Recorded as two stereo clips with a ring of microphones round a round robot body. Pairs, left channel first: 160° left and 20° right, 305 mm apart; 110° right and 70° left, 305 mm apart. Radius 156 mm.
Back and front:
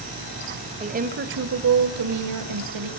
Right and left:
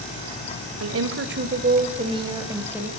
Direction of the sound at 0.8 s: 40° left.